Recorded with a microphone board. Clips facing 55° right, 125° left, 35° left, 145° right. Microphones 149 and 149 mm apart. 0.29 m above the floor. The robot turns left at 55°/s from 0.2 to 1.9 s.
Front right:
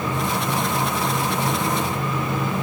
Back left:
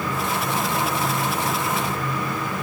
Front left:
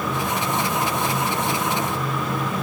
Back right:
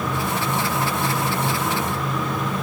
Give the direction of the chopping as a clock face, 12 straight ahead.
I don't hear chopping.